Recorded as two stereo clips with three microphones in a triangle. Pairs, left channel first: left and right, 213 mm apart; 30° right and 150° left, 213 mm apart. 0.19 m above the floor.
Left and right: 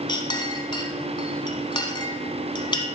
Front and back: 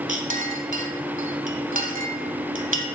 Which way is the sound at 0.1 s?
145° left.